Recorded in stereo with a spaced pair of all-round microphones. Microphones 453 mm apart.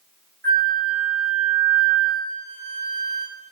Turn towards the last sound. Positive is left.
turn(degrees=-25)  # may be behind; listen again after turning